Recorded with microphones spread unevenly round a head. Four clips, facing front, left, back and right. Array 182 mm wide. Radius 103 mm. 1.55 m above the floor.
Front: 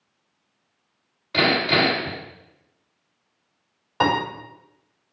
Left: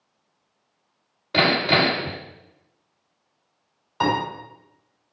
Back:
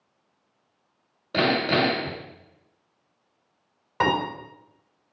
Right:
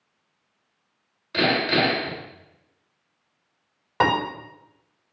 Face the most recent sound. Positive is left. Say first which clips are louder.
# right 1 dB, front 2 dB
turn(degrees=-85)